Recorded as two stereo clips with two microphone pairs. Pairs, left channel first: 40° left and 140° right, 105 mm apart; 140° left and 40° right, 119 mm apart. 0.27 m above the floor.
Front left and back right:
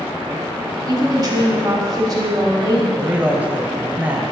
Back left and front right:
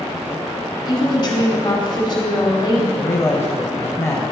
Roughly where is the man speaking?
Behind.